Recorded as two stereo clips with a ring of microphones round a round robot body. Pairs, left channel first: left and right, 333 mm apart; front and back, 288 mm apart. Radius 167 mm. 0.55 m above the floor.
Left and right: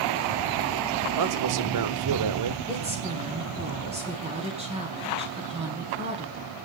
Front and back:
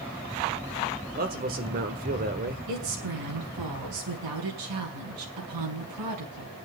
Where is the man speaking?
115° right, 1.4 m.